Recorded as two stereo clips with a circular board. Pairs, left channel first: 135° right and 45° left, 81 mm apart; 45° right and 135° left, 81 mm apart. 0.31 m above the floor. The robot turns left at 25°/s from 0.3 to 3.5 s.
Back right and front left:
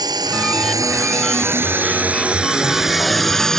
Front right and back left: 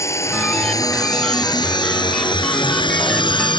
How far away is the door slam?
No door slam in this recording.